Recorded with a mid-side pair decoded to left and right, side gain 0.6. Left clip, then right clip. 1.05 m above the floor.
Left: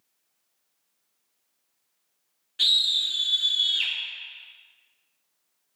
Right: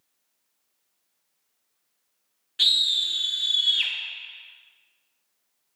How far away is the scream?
About 0.5 m.